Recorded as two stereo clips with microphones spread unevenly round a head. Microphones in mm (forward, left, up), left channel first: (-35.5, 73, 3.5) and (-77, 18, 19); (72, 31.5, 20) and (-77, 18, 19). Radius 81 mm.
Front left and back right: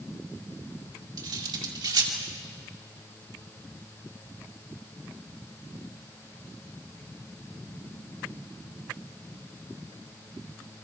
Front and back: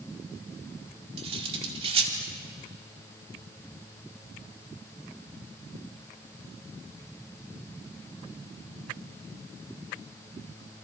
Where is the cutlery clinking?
120° right, 2.5 m.